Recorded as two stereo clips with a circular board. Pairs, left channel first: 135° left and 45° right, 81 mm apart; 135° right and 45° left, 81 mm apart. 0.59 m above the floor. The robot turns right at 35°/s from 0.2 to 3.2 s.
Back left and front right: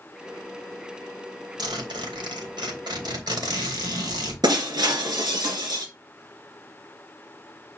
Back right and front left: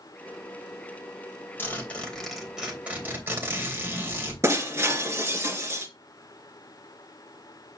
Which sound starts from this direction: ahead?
Breaking glass, at 4.4 s.